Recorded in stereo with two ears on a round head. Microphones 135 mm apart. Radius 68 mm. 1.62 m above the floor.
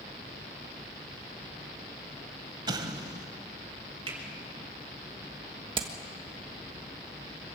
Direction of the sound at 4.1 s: 40° right (ahead or behind).